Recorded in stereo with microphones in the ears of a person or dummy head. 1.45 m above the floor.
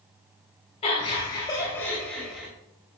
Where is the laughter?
35° left (ahead or behind), 3 m; by 2.5 s 5° right (ahead or behind), 3 m.